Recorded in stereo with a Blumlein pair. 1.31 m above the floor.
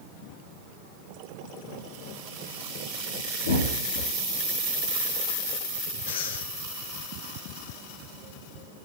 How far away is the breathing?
About 2.5 m.